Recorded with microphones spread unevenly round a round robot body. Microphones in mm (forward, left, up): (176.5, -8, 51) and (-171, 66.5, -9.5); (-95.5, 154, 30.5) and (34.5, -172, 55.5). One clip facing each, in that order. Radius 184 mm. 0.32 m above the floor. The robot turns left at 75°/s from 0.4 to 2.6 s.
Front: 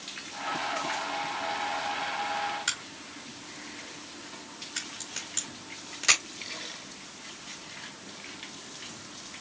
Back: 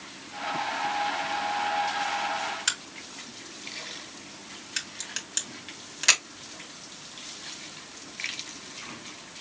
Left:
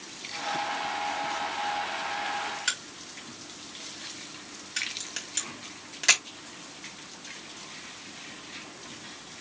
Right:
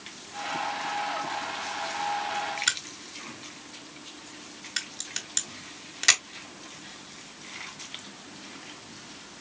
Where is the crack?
125° right, 1.7 m.